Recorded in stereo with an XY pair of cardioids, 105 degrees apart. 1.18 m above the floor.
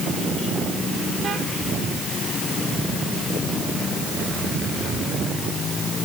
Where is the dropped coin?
No dropped coin in this recording.